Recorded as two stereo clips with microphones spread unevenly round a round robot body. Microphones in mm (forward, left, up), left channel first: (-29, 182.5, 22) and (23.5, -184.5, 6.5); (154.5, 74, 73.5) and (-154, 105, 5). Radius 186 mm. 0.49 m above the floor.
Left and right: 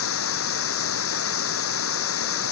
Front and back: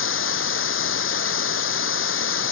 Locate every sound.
0.0 s running water: 40° left